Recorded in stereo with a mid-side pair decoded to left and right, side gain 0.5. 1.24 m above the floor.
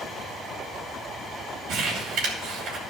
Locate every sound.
1.7 s crumpling: 70° right, 3 m